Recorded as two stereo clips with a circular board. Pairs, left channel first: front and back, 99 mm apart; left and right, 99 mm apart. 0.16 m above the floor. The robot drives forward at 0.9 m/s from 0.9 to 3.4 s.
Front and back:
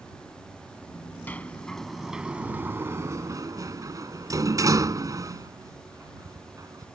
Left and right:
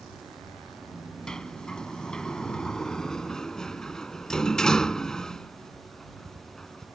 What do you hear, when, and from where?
1.3 s a sliding door: 25° left; by 6.9 s 170° left